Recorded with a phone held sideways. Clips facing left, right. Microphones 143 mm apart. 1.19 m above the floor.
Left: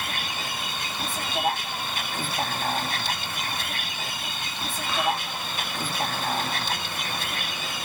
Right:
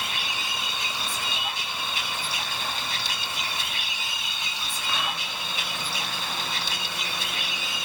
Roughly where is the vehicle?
Left.